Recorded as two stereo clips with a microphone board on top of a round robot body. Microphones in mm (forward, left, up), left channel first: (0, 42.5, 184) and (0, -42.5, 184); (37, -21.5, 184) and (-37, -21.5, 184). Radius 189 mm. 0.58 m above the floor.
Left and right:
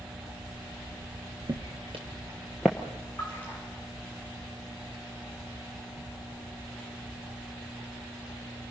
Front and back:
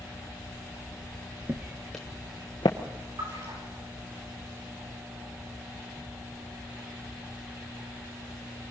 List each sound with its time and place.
1.5 s footsteps: 120° right, 0.6 m; by 2.8 s 5° left, 0.7 m
3.2 s a splash: 165° left, 9 m